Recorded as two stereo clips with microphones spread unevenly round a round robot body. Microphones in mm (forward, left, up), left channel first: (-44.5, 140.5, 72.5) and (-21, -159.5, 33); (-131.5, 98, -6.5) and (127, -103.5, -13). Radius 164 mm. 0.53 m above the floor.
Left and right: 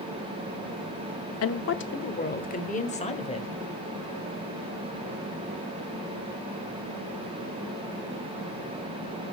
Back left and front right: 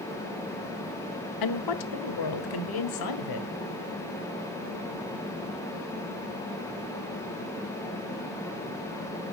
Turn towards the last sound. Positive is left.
turn(degrees=170)